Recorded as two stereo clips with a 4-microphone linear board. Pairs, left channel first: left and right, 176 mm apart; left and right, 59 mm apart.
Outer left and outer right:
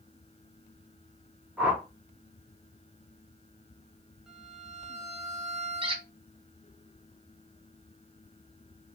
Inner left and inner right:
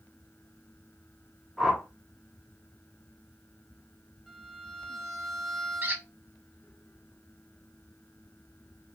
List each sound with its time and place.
1.6 s a whoosh: 5° right (ahead or behind), 0.6 m
4.3 s a violin: centre (ahead or behind), 0.7 m
5.8 s a squeak: 30° right (ahead or behind), 0.6 m